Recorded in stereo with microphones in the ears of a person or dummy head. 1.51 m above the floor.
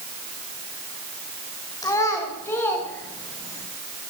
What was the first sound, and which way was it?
A child speaking, 15° left (ahead or behind).